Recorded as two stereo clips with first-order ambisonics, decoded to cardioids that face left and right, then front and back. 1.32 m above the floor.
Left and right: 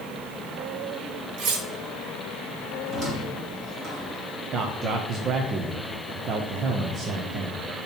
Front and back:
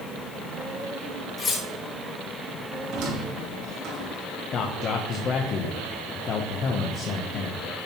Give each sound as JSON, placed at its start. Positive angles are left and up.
{"t": 1.4, "sound": "cutlery clinking", "azimuth_deg": -65, "distance_m": 1.1}
{"t": 2.9, "sound": "a squeak", "azimuth_deg": -150, "distance_m": 2.5}
{"t": 4.5, "sound": "a man speaking", "azimuth_deg": -45, "distance_m": 0.6}